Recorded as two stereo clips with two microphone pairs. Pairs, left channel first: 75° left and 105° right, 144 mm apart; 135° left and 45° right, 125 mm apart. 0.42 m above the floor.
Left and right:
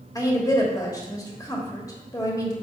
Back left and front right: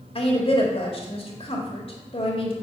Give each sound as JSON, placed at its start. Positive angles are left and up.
{"t": 0.1, "sound": "a woman speaking", "azimuth_deg": 130, "distance_m": 1.6}